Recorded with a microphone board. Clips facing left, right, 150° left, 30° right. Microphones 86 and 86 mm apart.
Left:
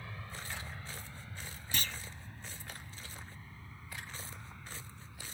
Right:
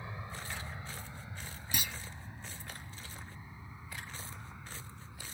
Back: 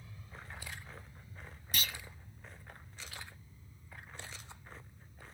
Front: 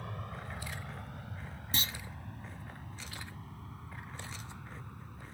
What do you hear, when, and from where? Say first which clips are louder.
0.0 s an aircraft: right 2 dB, front 10 dB; 20° right; by 5.3 s 15° right
1.7 s a clunk: even, front 1 dB; 25° right